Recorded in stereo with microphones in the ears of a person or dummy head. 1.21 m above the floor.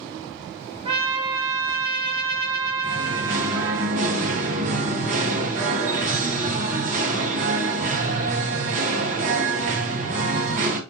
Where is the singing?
35° right (ahead or behind), 1.0 m.